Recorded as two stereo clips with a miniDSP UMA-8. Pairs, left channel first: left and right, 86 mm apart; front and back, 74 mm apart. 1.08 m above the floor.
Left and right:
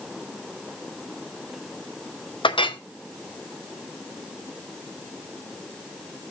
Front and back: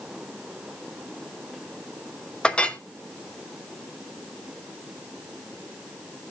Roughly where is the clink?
Left.